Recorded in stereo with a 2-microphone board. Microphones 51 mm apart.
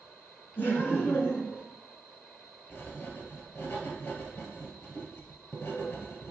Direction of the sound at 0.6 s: 35° left (ahead or behind).